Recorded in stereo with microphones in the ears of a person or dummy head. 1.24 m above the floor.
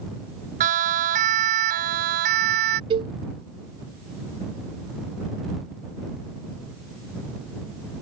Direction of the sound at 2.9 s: 30° right (ahead or behind).